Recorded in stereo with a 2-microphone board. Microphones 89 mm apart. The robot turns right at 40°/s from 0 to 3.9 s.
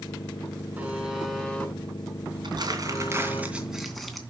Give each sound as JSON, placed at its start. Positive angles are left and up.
{"t": 0.8, "sound": "a buzzer", "azimuth_deg": -20, "distance_m": 5.0}
{"t": 2.4, "sound": "crumpling", "azimuth_deg": -60, "distance_m": 2.5}